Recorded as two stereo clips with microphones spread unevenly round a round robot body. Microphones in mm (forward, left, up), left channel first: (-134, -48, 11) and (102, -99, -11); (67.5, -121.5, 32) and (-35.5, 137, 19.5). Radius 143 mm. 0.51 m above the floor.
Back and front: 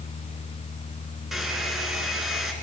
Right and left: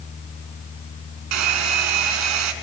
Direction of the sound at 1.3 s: 80° left.